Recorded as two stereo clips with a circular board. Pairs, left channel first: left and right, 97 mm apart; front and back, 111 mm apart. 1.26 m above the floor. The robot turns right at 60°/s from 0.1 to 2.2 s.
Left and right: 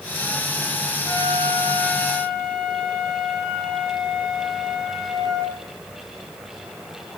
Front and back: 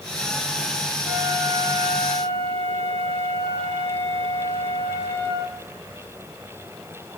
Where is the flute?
120° left, 4.5 m; by 5.6 s 170° right, 4.5 m.